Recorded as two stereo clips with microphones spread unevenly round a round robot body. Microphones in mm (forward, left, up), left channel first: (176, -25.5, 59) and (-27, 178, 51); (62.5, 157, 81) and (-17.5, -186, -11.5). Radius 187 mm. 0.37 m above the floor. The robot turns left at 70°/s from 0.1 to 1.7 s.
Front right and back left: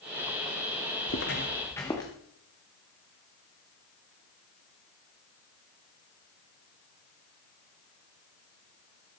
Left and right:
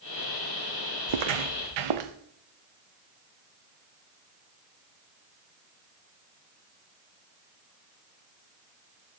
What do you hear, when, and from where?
1.1 s footsteps: 100° right, 1.0 m; by 2.1 s 125° right, 2 m